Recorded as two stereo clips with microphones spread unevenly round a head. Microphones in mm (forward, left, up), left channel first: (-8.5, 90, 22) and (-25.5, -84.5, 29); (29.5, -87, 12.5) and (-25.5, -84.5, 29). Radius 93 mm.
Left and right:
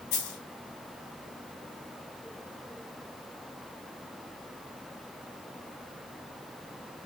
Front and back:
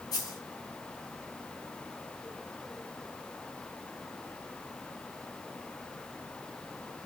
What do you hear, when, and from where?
0.1 s a dropped coin: 45° left, 3 m